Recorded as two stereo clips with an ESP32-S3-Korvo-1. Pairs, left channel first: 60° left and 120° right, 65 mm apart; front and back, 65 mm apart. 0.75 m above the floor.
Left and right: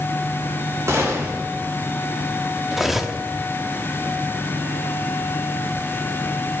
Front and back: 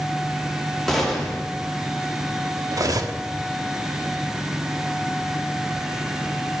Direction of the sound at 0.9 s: 85° right.